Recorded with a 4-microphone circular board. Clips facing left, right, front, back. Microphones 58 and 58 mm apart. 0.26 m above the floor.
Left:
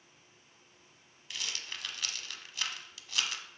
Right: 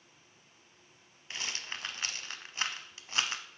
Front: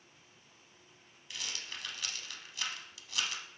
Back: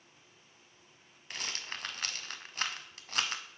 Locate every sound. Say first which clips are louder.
1.3 s a rattle: right 2 dB, back 3 dB; 140° right, 0.6 m